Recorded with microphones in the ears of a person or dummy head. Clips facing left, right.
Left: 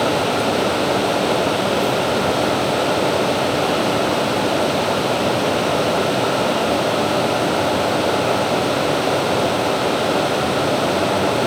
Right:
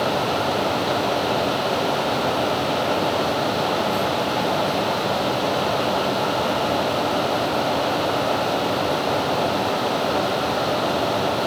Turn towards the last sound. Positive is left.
No sound to turn to.